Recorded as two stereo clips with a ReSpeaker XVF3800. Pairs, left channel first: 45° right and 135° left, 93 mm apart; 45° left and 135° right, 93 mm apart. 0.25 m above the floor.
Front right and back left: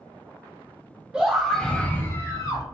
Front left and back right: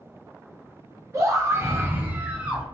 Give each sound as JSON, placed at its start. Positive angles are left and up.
{"t": 1.1, "sound": "a scream", "azimuth_deg": -150, "distance_m": 1.3}